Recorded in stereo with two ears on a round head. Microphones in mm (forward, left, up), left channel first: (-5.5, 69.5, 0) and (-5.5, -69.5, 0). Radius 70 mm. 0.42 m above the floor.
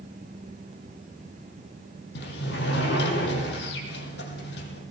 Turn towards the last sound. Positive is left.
turn(degrees=80)